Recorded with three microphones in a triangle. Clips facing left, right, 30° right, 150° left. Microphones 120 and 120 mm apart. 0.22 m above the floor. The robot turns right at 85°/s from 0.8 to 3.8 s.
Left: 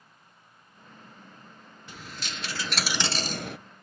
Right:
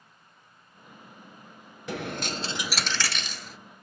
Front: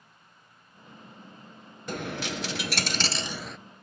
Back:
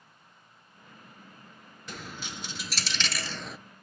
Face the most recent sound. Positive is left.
turn(degrees=85)